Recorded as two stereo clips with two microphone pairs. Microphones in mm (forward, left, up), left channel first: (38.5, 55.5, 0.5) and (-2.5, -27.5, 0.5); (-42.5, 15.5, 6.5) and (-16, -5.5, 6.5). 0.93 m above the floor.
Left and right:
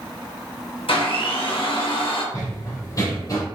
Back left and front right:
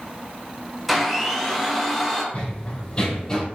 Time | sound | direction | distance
0.9 | a blender | 50° left | 1.0 m
2.3 | running footsteps | 105° left | 1.4 m